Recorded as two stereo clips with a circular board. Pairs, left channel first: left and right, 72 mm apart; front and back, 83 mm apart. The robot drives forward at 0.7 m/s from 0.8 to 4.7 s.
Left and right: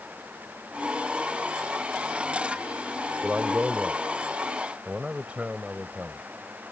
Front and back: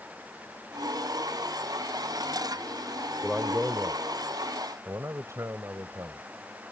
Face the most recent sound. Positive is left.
turn(degrees=-155)